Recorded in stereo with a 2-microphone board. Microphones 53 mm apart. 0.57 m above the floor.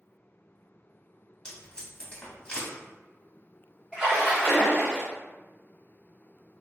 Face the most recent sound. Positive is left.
turn(degrees=-15)  # may be behind; listen again after turning